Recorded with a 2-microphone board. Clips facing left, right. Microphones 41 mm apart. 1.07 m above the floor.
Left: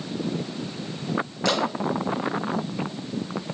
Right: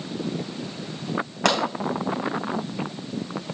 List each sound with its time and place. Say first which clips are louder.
1.4 s a pop: right 3 dB; 80° right, 2.5 m